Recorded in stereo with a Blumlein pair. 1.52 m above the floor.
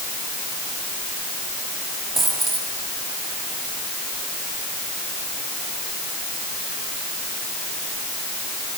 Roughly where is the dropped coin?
Ahead.